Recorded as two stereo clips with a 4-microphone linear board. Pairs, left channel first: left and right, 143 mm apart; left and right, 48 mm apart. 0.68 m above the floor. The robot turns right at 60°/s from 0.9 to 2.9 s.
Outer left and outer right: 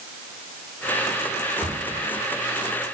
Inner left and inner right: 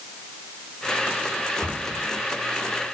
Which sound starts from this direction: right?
A cupboard door, at 1.6 s.